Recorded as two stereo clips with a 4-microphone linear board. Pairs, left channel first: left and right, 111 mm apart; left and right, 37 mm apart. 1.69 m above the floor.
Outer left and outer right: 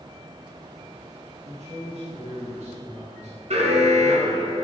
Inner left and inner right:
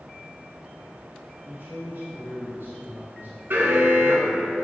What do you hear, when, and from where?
1.4 s a man speaking: 80° right, 2.5 m
3.5 s an alarm: 75° right (ahead or behind), 1.5 m